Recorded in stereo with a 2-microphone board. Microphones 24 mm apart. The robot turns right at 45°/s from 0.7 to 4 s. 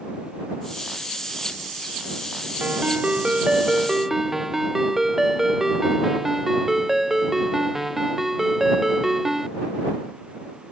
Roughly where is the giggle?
I don't hear a giggle.